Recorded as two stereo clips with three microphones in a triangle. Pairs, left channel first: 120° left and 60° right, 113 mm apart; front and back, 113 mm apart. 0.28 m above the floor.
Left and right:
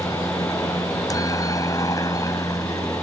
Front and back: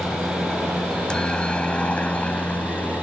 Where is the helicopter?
85° left; by 3.0 s 75° left.